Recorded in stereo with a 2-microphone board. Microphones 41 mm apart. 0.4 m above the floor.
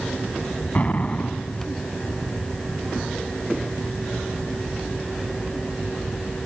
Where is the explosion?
35° left (ahead or behind).